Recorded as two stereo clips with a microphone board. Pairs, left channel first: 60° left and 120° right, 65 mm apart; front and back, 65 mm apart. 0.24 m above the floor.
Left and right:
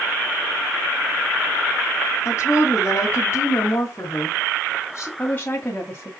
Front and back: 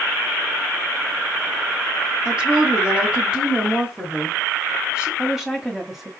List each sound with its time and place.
2.2 s a woman speaking: 105° left, 2.5 m
5.2 s a woman speaking: 95° left, 1.8 m